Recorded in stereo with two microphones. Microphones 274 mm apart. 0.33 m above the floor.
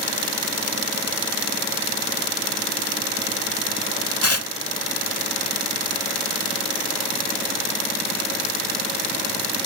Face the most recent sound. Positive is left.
turn(degrees=60)  # may be behind; listen again after turning